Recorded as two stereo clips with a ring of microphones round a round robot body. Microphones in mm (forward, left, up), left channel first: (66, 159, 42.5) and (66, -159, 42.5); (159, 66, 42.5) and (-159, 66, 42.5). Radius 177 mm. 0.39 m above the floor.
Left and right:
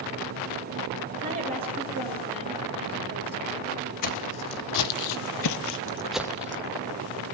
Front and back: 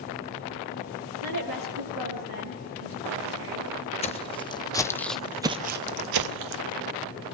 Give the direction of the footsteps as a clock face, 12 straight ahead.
10 o'clock.